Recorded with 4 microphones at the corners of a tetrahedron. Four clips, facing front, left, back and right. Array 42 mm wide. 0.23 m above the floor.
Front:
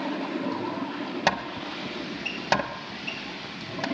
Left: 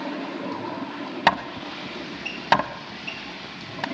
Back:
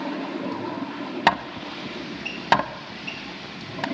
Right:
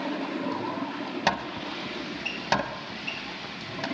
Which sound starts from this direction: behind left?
Hammering, at 1.3 s.